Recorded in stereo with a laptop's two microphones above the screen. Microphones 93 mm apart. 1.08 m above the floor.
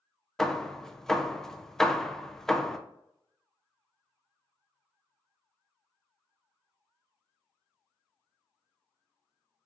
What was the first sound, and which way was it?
Hammering, 5° left (ahead or behind).